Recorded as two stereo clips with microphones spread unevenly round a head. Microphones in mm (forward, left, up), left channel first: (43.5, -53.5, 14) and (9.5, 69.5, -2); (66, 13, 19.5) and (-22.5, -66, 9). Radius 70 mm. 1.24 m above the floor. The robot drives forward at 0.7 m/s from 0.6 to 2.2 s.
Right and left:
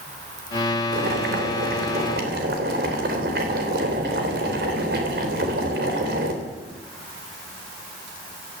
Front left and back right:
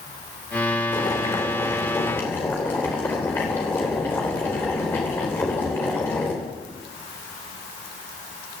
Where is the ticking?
No ticking in this recording.